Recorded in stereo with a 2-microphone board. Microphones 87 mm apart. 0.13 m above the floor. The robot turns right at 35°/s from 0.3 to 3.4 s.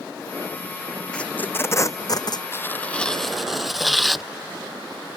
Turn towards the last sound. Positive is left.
turn(degrees=180)